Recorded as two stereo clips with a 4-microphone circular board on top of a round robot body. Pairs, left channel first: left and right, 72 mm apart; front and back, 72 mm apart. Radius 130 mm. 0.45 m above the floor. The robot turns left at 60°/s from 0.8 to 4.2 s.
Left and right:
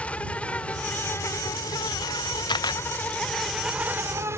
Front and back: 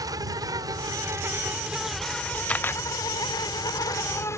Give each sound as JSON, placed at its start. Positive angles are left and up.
{"t": 0.0, "sound": "an insect", "azimuth_deg": 160}
{"t": 2.5, "sound": "a camera shutter", "azimuth_deg": 75}